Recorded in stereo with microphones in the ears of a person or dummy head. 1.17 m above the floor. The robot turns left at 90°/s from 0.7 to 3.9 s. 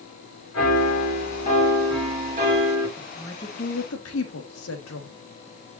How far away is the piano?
About 5.5 m.